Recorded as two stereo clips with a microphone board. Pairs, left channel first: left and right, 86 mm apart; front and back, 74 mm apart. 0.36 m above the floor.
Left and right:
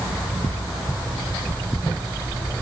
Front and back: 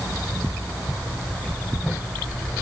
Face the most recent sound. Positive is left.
No sound to turn to.